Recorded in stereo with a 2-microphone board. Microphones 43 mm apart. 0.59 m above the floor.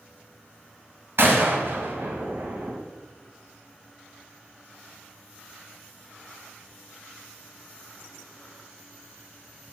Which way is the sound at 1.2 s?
65° right (ahead or behind).